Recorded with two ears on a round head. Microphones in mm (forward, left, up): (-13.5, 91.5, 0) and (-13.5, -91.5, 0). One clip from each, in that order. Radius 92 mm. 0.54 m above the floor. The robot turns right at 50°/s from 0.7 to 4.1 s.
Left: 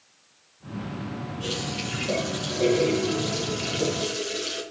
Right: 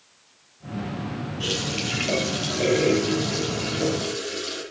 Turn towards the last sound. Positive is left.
turn(degrees=45)